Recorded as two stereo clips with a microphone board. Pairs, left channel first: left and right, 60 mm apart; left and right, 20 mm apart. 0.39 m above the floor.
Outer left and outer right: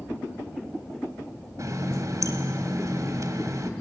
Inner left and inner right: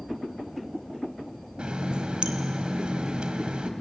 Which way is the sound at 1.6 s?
65° right (ahead or behind).